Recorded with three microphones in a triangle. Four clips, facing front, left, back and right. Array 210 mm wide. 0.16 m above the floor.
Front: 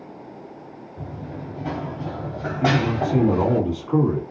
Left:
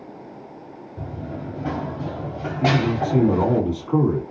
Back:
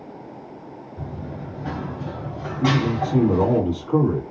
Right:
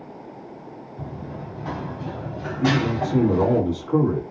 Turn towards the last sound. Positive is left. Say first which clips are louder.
# left 1 dB, even
turn(degrees=55)